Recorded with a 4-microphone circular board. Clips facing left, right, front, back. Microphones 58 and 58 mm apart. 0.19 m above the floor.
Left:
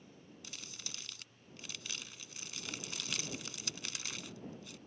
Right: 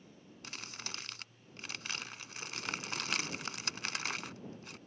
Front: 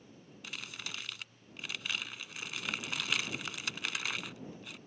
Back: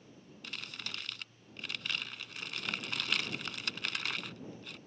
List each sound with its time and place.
0.4 s crumpling: 85° right